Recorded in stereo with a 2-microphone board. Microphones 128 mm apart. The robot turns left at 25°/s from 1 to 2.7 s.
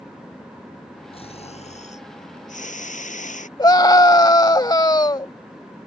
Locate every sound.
1.1 s snoring: 130° left; by 3.5 s 90° left
3.6 s a scream: 35° left (ahead or behind)